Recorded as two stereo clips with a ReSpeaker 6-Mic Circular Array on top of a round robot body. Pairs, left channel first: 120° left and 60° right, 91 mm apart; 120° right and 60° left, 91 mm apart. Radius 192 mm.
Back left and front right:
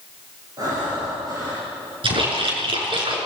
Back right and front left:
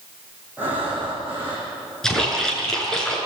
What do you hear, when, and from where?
0.6 s breathing: 10° right, 9 m
2.0 s a splash: 35° right, 6.5 m